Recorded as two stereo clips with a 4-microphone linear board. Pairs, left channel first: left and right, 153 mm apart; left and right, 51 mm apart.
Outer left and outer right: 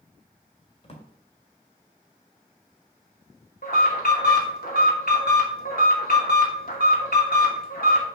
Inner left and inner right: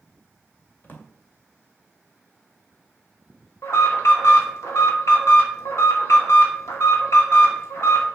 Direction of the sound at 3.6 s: 70° left (ahead or behind).